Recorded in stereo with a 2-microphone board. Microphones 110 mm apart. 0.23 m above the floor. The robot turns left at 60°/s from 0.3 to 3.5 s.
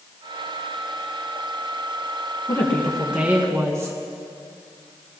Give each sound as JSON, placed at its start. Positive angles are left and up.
{"t": 2.5, "sound": "a woman speaking", "azimuth_deg": 30, "distance_m": 1.9}